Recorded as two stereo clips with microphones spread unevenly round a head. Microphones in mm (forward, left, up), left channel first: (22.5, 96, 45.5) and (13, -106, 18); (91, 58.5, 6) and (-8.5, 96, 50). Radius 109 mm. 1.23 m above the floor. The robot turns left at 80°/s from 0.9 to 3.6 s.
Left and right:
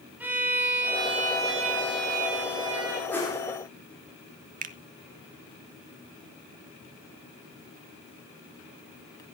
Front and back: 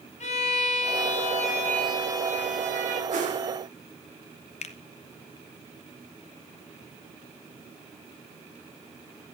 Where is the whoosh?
170° left, 4 m; by 3.4 s 145° left, 4 m.